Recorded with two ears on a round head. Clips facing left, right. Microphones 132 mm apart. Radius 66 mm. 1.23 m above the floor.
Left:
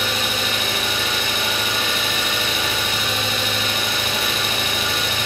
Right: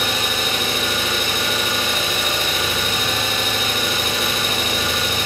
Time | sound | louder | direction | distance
0.0 | an engine running | right 1 dB | 40° right (ahead or behind) | 0.8 m